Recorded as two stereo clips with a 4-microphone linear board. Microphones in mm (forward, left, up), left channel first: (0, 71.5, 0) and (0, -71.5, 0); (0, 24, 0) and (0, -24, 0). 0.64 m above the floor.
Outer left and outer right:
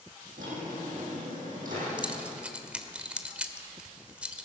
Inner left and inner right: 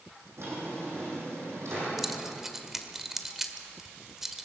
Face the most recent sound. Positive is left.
turn(degrees=-10)  # may be behind; listen again after turning